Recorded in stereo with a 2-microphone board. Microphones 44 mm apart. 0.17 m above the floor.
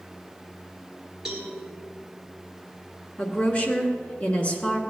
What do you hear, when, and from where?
1.2 s a cowbell: 10° right (ahead or behind), 3 m
3.2 s a woman speaking: 30° left (ahead or behind), 1.7 m